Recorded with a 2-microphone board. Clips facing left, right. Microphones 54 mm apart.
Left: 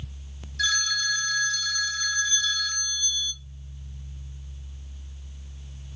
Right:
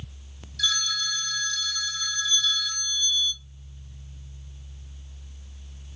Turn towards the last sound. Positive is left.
turn(degrees=35)  # may be behind; listen again after turning